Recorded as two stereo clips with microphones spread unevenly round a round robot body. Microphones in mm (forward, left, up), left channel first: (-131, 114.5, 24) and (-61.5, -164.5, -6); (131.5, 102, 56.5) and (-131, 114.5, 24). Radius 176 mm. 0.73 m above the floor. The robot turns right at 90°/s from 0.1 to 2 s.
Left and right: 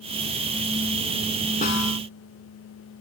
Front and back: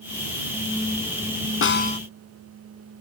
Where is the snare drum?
35° left; by 2.0 s 70° left.